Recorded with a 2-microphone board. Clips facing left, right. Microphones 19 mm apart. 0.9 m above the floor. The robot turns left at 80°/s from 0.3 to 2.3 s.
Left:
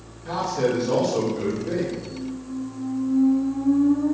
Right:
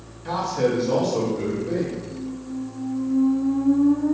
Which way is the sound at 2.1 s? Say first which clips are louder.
Even; 20° left (ahead or behind).